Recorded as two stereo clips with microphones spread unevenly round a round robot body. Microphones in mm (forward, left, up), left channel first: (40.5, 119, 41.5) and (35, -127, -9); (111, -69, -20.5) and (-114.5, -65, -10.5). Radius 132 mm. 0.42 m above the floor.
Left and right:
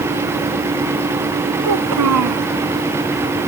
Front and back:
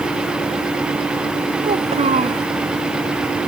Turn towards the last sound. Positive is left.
turn(degrees=-120)